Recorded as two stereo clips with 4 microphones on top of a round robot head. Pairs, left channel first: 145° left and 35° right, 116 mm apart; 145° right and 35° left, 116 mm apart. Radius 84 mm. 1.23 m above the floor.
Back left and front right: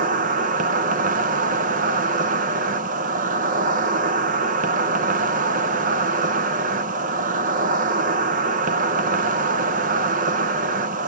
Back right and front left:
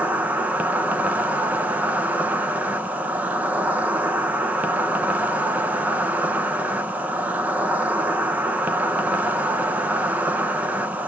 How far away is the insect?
About 0.8 m.